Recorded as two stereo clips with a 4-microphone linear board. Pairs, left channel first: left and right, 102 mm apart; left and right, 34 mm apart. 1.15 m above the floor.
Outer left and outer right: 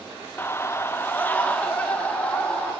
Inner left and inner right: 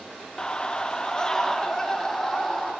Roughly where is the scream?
Left.